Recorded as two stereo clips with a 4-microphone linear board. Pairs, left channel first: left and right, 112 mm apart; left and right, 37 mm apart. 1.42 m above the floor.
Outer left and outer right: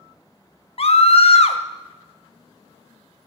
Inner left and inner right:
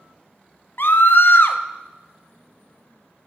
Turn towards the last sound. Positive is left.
turn(degrees=55)  # may be behind; listen again after turning